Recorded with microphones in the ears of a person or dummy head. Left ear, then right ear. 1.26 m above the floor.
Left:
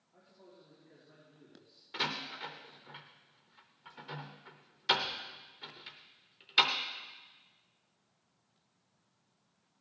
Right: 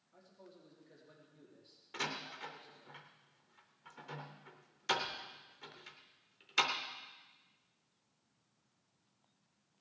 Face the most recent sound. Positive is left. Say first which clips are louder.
# left 5 dB
turn(degrees=-10)  # may be behind; listen again after turning